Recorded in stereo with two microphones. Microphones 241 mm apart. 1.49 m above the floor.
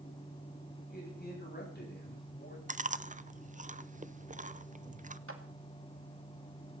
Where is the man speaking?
40° left (ahead or behind), 10 m; by 2.6 s 45° left (ahead or behind), 10.5 m.